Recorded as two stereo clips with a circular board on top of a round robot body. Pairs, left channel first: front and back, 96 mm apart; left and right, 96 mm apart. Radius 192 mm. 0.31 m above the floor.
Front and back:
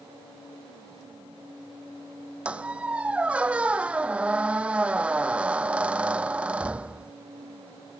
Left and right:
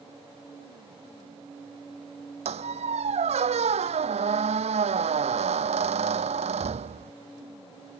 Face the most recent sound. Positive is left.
turn(degrees=-100)